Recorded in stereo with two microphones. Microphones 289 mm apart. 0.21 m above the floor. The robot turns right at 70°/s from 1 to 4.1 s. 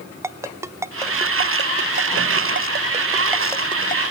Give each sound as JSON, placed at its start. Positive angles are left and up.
{"t": 0.2, "sound": "a ringtone", "side_deg": -10, "distance_m": 0.7}